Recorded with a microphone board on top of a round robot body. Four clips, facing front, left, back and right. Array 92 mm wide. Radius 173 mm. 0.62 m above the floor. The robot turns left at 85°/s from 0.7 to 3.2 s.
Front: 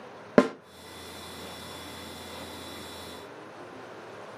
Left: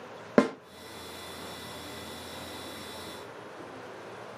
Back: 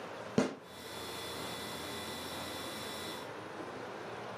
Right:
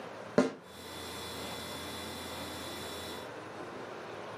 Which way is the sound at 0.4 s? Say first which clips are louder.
Left 4 dB, front 11 dB; 30° left.